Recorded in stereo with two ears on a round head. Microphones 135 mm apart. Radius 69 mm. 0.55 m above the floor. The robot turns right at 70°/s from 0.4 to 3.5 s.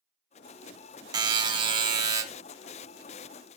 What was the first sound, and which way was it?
A buzzer, 120° right.